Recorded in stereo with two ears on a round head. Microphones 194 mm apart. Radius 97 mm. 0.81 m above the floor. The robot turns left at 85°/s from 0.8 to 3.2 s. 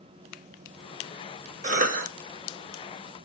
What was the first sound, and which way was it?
A cough, 55° right.